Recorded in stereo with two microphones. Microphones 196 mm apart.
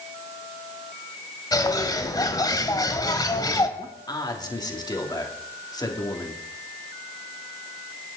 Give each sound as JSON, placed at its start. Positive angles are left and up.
{"t": 1.5, "sound": "a bird", "side_deg": 20, "distance_m": 1.4}
{"t": 3.8, "sound": "a man speaking", "side_deg": 20, "distance_m": 2.5}